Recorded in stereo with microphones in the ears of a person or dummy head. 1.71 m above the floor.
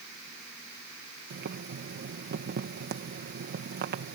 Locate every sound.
1.3 s boiling: 50° right (ahead or behind)